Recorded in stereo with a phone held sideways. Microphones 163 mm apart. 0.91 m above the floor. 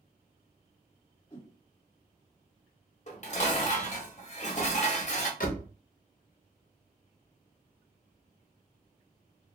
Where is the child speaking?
No child speaking in this recording.